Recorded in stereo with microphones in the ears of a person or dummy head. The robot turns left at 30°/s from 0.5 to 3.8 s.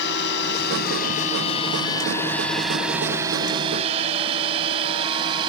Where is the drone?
65° left (ahead or behind); by 5.5 s 25° right (ahead or behind).